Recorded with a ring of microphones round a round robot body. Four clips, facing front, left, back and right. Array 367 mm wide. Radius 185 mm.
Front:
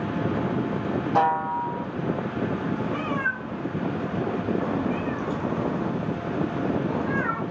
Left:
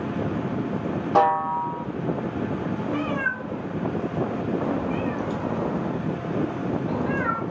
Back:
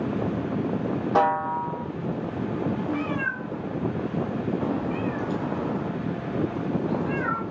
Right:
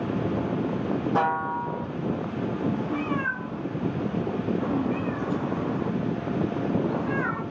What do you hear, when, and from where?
1.1 s a snare drum: 115° left, 2.5 m
2.9 s a cat meowing: 95° left, 2.5 m